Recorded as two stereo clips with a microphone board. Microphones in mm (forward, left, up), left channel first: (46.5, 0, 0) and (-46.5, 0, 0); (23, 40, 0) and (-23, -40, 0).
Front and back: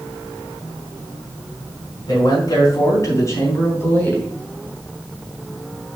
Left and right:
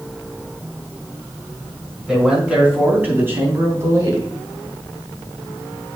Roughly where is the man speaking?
Ahead right.